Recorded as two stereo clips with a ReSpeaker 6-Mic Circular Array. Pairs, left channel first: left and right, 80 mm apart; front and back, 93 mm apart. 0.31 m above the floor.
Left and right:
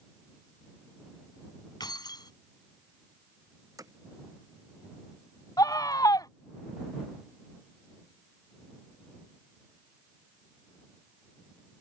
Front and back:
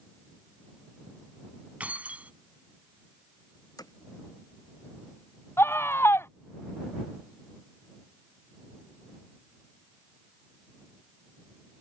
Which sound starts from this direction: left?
Keys jangling, at 1.8 s.